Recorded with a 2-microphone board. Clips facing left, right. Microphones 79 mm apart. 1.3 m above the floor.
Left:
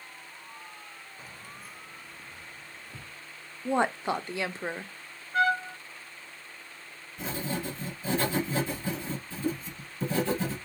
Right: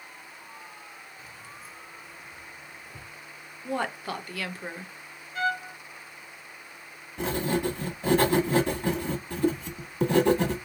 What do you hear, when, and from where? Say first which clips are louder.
1.2 s keys jangling: right 1 dB; 35° left (ahead or behind), 0.5 m; by 3.2 s 75° left (ahead or behind), 1.7 m
3.6 s a woman speaking: left 4 dB; 25° left (ahead or behind), 0.6 m
5.3 s a trumpet: left 3 dB; 65° left (ahead or behind), 2.5 m
7.2 s writing: right 7 dB; 65° right (ahead or behind), 1.3 m